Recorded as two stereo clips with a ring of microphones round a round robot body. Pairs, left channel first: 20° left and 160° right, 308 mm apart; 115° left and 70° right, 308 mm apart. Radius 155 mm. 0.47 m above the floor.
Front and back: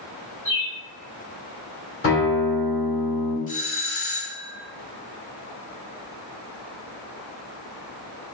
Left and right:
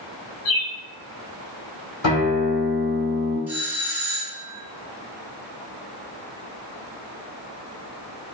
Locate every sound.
0.5 s a bird: 105° left, 0.9 m
2.0 s a guitar: 75° left, 1.9 m
3.5 s a doorbell: 10° left, 1.2 m